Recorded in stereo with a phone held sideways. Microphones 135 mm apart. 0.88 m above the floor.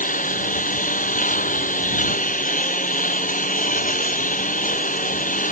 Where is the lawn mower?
75° left (ahead or behind).